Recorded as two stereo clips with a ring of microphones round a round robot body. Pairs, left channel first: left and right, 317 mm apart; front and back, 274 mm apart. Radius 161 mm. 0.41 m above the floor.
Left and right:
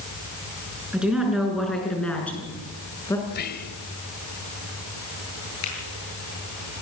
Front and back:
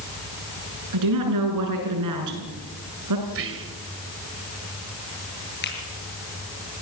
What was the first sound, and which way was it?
A woman speaking, 175° right.